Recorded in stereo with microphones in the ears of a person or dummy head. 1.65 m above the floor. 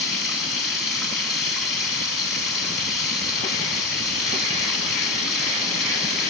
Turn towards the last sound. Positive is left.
turn(degrees=-5)  # may be behind; listen again after turning